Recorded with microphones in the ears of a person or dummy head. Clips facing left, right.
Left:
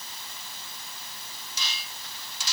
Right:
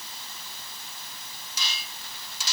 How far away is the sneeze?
I don't hear a sneeze.